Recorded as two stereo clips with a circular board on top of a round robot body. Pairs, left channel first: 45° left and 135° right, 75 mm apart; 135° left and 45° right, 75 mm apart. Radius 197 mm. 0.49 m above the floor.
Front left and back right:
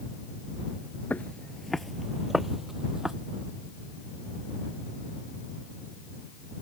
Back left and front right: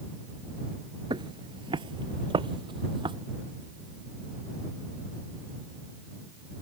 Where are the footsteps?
25° right; by 3.1 s 50° right.